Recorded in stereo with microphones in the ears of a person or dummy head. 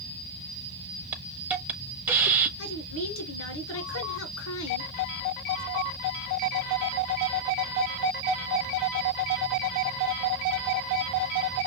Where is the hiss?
10° right (ahead or behind), 0.7 m.